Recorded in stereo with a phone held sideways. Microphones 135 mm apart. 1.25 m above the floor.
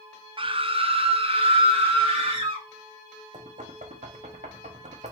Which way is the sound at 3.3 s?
65° right (ahead or behind).